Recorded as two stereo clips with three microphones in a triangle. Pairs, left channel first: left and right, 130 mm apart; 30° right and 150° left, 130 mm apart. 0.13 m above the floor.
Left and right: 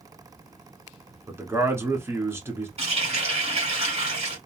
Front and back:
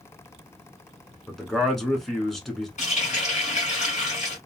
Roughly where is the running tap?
Ahead right.